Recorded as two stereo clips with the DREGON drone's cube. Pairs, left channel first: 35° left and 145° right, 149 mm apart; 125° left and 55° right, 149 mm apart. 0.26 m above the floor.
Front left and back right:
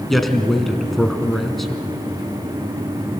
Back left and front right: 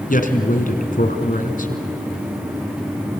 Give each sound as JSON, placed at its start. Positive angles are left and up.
{"t": 0.1, "sound": "a man speaking", "azimuth_deg": 125, "distance_m": 2.5}